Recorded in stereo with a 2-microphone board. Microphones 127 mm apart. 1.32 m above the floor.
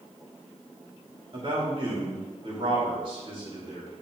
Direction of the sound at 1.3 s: 45° right (ahead or behind).